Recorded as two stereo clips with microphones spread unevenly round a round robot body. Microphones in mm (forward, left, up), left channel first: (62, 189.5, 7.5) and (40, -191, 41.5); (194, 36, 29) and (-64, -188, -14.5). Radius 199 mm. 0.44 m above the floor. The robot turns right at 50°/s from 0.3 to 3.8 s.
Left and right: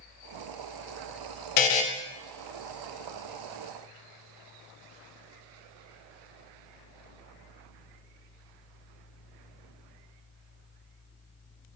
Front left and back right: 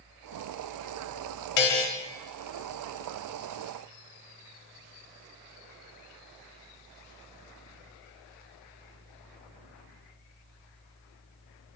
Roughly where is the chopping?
No chopping in this recording.